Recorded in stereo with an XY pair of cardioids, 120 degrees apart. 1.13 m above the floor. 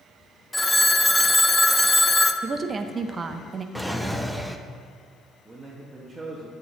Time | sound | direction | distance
0.5 | a phone ringing | 15° left | 0.5 m
2.4 | a woman speaking | 30° right | 0.7 m
3.8 | a drawer | straight ahead | 0.6 m
5.5 | a man speaking | 10° right | 1.3 m